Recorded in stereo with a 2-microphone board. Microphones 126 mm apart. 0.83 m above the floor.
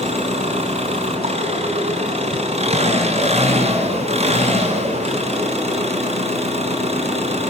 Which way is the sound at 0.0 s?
55° right (ahead or behind).